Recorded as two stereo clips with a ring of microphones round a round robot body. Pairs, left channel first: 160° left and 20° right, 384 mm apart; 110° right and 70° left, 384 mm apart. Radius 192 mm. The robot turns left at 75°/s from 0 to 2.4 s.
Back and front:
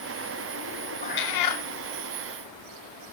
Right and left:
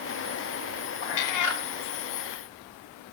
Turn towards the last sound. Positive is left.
turn(degrees=125)